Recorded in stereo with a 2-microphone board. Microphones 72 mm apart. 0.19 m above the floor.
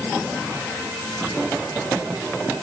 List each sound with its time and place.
Only background noise.